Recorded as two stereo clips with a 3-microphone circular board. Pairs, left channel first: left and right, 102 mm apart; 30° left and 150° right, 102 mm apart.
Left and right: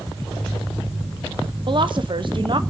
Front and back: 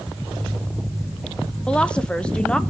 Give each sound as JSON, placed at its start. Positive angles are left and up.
{"t": 1.7, "sound": "a woman speaking", "azimuth_deg": -50, "distance_m": 1.0}